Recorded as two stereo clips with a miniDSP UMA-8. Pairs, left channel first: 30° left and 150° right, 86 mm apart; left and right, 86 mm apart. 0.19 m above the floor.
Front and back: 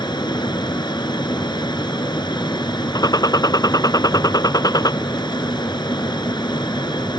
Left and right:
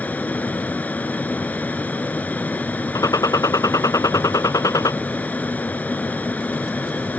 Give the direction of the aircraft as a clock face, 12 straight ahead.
11 o'clock.